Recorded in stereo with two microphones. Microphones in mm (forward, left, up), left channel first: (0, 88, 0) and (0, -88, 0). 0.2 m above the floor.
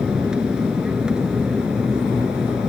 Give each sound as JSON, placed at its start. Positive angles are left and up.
{"t": 0.0, "sound": "an aircraft", "side_deg": -5}